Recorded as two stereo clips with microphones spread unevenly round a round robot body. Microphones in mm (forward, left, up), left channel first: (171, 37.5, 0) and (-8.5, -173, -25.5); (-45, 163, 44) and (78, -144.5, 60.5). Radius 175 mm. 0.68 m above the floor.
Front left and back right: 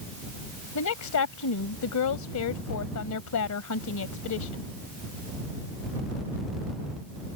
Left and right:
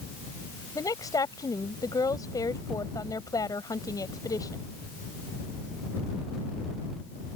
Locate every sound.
0.8 s a woman speaking: 30° left